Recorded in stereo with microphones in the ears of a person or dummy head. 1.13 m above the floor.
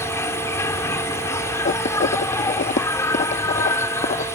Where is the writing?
40° left (ahead or behind).